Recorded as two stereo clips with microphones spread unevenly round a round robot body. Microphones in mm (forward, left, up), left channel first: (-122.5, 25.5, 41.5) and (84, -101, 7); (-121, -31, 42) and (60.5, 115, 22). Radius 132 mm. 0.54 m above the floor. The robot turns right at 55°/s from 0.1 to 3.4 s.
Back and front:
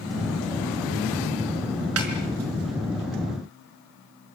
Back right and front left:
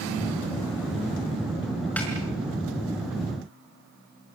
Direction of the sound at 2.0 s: 55° right.